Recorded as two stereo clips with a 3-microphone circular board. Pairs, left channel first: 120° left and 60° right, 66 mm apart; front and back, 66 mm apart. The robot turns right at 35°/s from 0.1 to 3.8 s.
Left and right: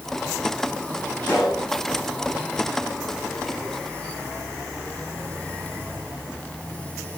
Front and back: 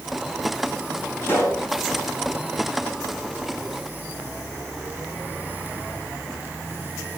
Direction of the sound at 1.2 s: 55° left.